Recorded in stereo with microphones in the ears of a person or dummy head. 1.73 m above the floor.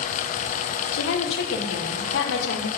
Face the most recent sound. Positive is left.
turn(degrees=70)  # may be behind; listen again after turning